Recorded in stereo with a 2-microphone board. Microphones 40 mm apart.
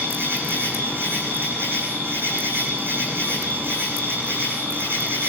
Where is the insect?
65° right (ahead or behind), 9.5 m.